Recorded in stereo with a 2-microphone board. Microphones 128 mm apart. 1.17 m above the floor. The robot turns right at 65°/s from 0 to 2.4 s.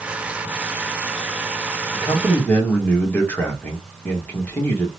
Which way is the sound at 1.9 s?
40° left (ahead or behind).